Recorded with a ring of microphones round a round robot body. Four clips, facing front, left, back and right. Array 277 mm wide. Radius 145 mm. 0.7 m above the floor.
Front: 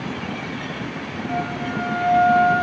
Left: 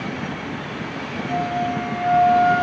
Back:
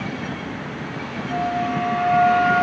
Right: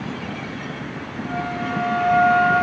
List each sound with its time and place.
1.3 s a flute: 105° right, 9.5 m